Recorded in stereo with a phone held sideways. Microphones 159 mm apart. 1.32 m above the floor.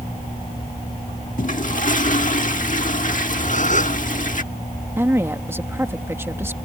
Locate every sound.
1.4 s a toilet flushing: 55° left (ahead or behind)
3.4 s a gasp: 50° left (ahead or behind)
5.0 s a woman speaking: 15° right (ahead or behind)